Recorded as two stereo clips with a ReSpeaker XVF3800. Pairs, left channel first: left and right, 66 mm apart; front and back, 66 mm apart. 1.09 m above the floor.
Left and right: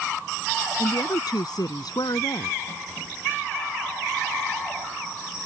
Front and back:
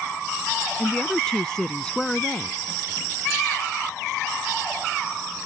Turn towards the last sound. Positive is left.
turn(degrees=80)